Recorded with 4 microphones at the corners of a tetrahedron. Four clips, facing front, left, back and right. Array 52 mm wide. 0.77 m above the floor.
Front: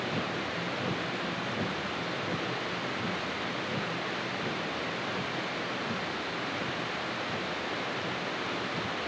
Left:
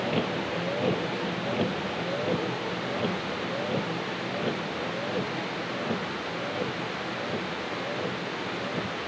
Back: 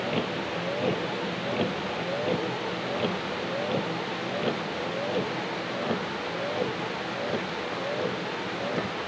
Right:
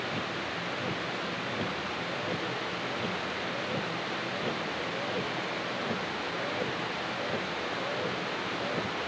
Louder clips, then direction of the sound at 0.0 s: Left 5 dB, back 3 dB; 135° left.